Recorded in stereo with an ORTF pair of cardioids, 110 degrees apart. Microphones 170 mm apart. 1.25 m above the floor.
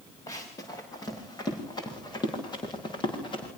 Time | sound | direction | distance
0.3 | running footsteps | 20° left | 8 m